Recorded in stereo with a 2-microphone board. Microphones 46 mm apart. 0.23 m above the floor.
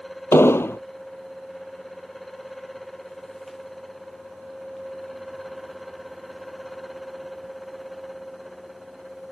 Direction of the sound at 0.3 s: 75° left (ahead or behind).